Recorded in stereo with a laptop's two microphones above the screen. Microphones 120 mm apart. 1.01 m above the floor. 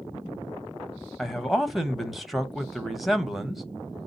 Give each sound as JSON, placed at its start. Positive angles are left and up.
{"t": 1.2, "sound": "a man speaking", "side_deg": 0, "distance_m": 0.8}